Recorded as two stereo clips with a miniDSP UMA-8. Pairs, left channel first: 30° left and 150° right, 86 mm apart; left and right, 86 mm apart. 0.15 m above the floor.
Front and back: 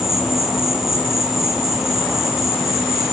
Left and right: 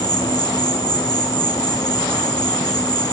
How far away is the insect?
About 1.0 m.